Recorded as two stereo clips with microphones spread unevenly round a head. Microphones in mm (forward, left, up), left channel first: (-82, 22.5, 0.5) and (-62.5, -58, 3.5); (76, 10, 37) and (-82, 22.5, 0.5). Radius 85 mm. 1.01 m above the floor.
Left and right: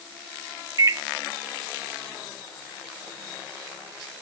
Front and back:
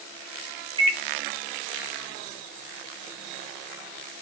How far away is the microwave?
About 1.3 m.